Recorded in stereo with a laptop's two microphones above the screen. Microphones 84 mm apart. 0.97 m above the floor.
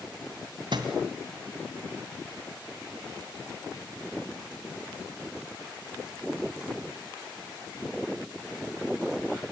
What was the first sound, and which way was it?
A thud, 65° right (ahead or behind).